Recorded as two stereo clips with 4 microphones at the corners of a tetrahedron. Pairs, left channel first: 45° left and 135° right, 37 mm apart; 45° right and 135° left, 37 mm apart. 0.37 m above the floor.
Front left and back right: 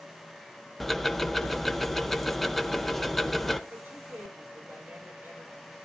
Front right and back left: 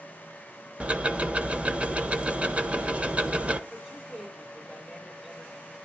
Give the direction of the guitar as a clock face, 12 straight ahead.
No guitar in this recording.